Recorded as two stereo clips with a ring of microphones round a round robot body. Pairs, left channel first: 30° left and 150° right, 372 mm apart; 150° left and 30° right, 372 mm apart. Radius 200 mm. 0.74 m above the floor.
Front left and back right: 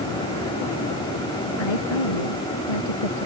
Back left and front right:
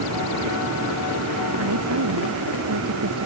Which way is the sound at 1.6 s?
20° left.